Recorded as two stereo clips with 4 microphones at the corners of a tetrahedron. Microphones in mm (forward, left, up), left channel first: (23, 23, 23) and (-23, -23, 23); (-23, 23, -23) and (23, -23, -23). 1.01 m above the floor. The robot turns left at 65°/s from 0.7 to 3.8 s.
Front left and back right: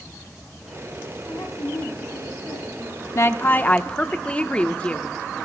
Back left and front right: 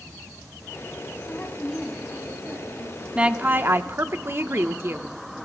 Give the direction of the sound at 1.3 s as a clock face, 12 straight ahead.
9 o'clock.